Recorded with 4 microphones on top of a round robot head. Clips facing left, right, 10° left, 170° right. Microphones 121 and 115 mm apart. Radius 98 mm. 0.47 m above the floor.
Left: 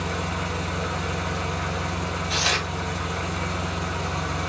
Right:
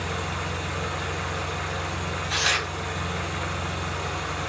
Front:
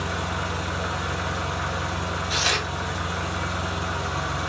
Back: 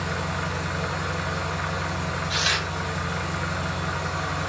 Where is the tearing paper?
40° left, 0.7 m.